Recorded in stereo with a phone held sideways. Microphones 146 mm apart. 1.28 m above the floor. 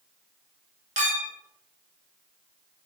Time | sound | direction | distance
1.0 | a clink | 55° right (ahead or behind) | 0.6 m